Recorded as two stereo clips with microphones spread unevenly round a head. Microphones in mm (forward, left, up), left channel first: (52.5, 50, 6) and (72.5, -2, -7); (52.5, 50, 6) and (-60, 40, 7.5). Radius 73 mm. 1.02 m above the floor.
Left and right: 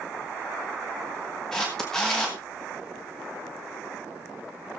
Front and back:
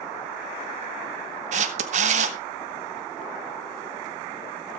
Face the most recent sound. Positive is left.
turn(degrees=-160)